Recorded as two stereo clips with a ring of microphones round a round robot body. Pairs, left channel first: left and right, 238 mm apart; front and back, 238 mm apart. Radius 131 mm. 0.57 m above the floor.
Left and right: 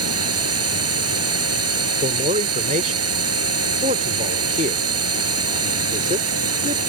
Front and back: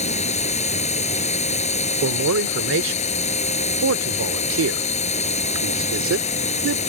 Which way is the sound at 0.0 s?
65° right.